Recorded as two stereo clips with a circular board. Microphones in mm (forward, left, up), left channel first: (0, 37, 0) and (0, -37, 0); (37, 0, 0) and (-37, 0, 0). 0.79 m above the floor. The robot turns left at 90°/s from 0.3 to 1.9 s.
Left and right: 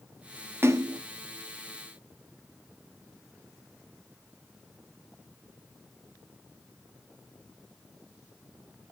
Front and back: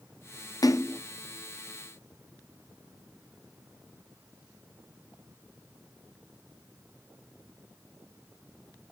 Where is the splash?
35° right, 0.7 m; by 1.0 s 65° right, 0.7 m.